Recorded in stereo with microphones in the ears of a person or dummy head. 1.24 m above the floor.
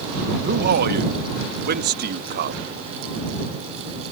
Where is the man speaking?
55° right (ahead or behind).